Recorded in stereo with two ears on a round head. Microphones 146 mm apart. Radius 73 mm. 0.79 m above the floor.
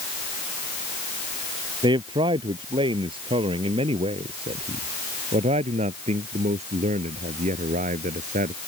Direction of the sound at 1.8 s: 30° right (ahead or behind).